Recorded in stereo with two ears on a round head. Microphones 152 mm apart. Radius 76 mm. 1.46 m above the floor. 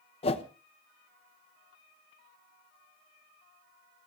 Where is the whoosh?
35° left (ahead or behind), 1.0 m.